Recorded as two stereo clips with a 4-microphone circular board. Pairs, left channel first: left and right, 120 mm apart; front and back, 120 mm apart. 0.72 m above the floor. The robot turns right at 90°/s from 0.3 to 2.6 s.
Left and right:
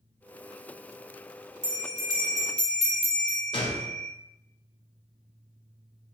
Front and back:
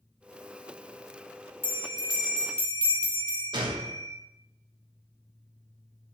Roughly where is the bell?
Right.